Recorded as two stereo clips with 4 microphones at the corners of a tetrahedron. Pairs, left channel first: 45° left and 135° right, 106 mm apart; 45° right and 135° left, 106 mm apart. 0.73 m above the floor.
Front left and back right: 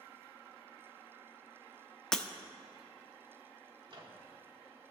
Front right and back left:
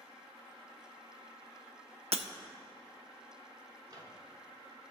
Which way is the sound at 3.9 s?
175° right.